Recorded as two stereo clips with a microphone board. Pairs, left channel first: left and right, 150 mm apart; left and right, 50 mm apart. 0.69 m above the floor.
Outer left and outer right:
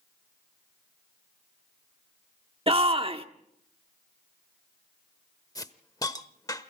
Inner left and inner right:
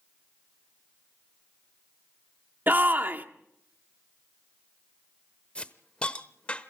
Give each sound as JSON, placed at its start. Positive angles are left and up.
{"t": 2.7, "sound": "a shout", "side_deg": -40, "distance_m": 1.3}
{"t": 5.5, "sound": "a hiss", "side_deg": 25, "distance_m": 0.8}